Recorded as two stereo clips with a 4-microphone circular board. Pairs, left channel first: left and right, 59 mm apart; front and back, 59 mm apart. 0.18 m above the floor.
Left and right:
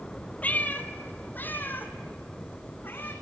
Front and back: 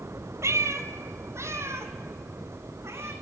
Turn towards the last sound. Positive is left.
turn(degrees=140)